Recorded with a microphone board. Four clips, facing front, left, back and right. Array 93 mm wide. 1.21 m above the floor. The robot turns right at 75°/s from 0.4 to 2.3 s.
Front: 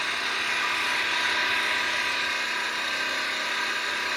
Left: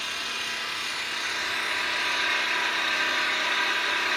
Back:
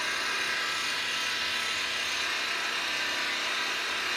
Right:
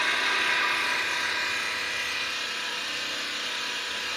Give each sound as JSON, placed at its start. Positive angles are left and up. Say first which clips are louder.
{"t": 0.0, "sound": "an engine running", "louder": "right 8 dB, front 3 dB", "azimuth_deg": -65, "distance_m": 2.0}